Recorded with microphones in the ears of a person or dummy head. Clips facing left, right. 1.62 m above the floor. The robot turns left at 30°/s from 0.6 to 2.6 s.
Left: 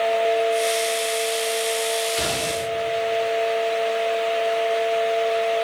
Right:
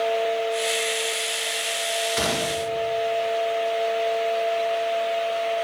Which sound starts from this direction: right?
A gunshot, at 2.2 s.